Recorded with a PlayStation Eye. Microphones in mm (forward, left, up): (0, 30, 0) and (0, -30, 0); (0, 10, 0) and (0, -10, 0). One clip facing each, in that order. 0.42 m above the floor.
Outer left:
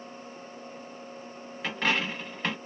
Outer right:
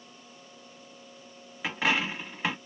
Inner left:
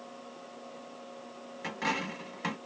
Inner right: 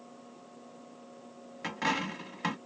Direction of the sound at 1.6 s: 10° right (ahead or behind).